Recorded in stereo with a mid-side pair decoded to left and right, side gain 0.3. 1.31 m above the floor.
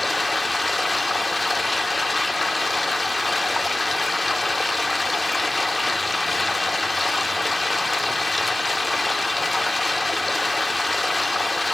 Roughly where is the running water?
Ahead left.